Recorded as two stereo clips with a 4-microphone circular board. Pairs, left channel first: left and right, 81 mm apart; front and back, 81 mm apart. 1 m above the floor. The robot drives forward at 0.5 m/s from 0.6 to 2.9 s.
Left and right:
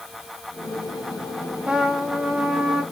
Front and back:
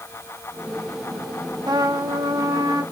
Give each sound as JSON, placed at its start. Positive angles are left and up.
{"t": 1.7, "sound": "a trumpet", "azimuth_deg": -165, "distance_m": 1.0}